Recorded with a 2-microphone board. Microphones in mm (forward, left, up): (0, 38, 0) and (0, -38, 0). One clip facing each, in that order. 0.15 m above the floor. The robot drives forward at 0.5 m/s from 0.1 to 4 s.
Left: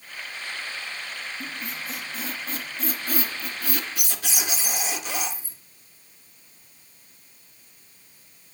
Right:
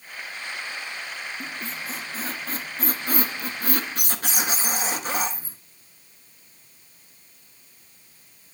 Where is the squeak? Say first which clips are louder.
Right 1 dB; 35° right (ahead or behind), 1.8 m; by 5.6 s 45° right (ahead or behind), 1.3 m.